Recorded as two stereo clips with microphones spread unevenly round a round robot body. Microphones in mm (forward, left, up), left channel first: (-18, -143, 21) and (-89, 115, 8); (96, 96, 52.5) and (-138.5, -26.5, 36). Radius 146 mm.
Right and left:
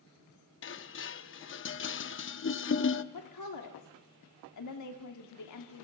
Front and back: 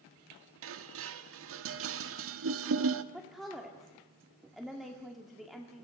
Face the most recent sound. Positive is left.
turn(degrees=-65)